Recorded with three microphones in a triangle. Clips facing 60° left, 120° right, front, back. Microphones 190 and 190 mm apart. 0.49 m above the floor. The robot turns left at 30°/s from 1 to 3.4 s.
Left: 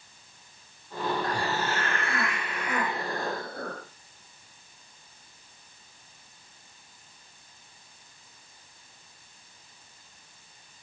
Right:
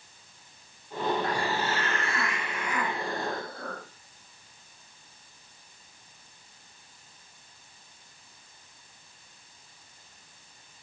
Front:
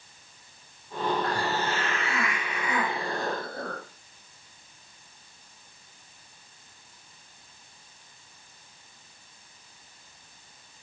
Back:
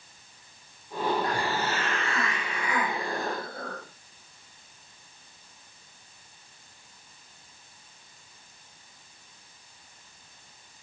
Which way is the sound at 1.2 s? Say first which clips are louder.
Even, even; 105° left.